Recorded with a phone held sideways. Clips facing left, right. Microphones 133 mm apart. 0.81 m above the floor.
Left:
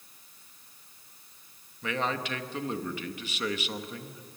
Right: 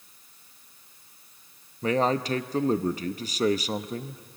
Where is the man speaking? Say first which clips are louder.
Right 7 dB; 35° right (ahead or behind), 0.6 m.